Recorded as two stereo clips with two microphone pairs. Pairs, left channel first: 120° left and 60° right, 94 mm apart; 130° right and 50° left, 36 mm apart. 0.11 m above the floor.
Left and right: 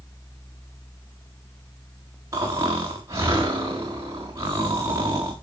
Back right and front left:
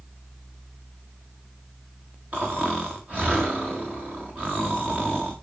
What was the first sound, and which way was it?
Snoring, 5° right.